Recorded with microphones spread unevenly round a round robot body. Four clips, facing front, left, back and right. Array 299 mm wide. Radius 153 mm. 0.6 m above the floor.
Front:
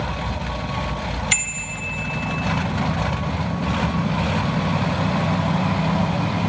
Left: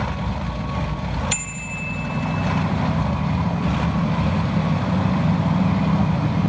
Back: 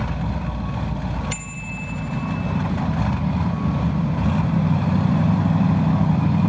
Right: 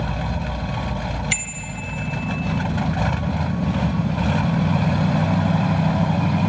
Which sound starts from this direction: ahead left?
A bicycle bell, at 1.3 s.